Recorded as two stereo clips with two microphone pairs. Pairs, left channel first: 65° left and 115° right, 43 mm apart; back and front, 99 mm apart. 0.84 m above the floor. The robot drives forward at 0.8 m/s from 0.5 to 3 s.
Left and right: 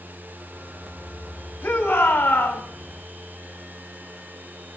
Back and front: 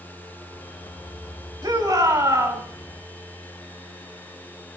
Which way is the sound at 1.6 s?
45° left.